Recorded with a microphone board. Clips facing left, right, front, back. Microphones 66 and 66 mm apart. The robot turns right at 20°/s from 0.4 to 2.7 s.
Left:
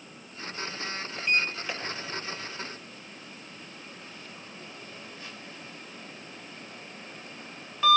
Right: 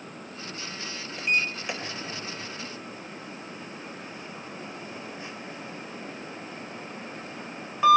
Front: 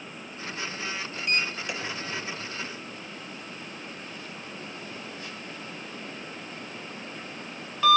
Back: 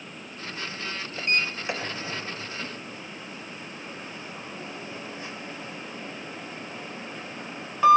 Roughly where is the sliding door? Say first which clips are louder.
Right 1 dB, back 2 dB; behind.